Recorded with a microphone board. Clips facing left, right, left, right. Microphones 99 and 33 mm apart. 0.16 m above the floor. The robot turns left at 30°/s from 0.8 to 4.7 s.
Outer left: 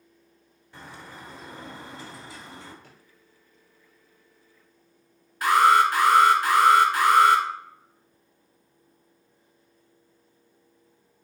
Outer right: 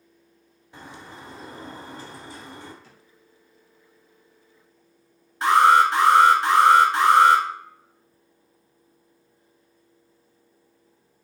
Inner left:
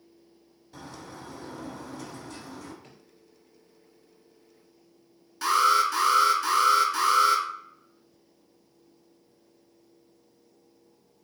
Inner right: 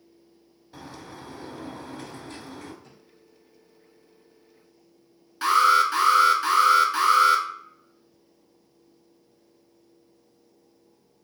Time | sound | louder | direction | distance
0.7 | a bird | outer right 1 dB, inner right 1 dB | 15° right | 1.4 m
2.8 | a drawer | even, even | 55° left (ahead or behind) | 1.9 m
5.4 | an alarm | outer right 2 dB, inner right 3 dB | 30° right (ahead or behind) | 1.1 m